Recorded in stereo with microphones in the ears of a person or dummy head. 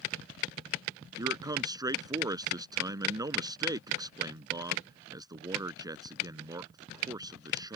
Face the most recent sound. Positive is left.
turn(degrees=-15)  # may be behind; listen again after turning